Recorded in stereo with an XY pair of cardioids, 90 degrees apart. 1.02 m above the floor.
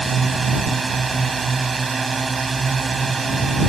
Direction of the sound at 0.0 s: 30° right.